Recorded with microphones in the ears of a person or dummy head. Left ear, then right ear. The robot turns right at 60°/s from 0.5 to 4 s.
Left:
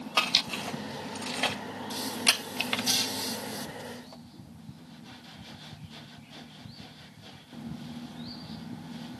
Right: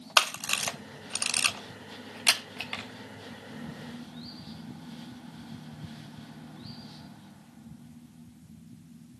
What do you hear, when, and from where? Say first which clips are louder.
0.2 s a camera shutter: right 1 dB; 65° right (ahead or behind), 1.1 m; by 2.9 s 35° left (ahead or behind), 1.1 m